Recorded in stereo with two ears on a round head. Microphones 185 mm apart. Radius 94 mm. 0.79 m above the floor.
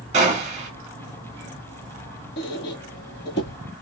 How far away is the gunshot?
About 1.0 m.